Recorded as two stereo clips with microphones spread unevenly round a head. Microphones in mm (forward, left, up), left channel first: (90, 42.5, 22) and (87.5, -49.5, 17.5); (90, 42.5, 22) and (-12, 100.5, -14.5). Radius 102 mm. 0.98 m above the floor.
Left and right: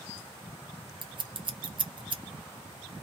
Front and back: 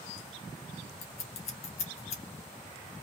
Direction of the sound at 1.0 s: 55° right.